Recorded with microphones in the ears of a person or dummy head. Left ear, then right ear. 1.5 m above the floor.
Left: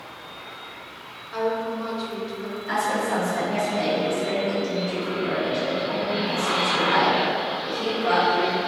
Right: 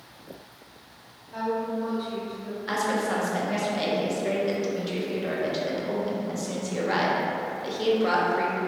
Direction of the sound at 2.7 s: 35° right (ahead or behind).